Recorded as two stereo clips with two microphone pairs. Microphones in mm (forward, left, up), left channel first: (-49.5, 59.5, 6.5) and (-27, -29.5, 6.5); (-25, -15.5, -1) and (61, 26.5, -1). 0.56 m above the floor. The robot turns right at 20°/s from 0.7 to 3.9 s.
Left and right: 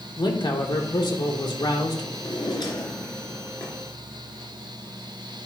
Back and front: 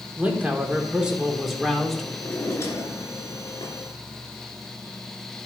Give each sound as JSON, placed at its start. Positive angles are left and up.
{"t": 0.2, "sound": "a man speaking", "azimuth_deg": 95, "distance_m": 1.4}
{"t": 2.2, "sound": "a drawer", "azimuth_deg": 135, "distance_m": 2.5}